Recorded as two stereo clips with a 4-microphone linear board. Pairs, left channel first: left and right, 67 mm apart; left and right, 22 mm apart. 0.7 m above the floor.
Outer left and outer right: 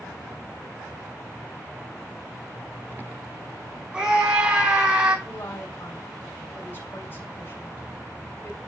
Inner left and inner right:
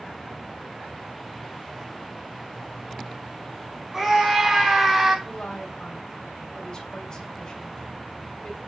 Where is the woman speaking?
30° left (ahead or behind), 2.5 m.